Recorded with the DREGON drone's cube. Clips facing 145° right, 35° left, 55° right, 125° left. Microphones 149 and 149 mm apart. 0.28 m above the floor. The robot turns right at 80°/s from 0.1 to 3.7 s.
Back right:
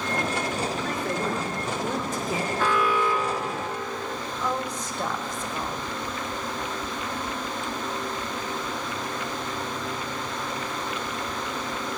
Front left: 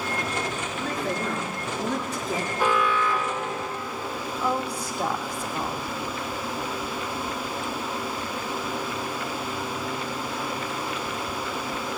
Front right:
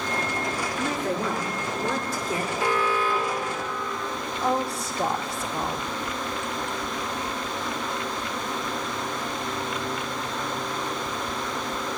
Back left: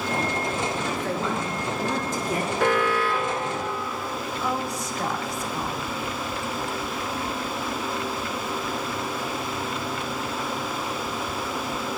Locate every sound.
0.8 s a woman speaking: 20° right, 5.5 m; by 2.5 s 115° left, 5.5 m
2.6 s an alarm: 110° left, 2.5 m; by 4.2 s 160° right, 2.5 m
4.4 s a woman speaking: 35° right, 1.1 m